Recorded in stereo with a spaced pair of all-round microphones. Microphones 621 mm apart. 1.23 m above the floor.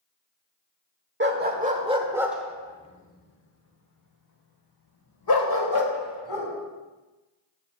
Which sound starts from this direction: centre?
A dog barking, at 1.2 s.